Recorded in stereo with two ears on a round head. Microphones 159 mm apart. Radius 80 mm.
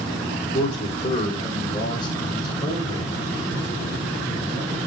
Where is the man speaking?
35° left (ahead or behind), 2.5 m; by 4.9 s 15° left (ahead or behind), 4 m.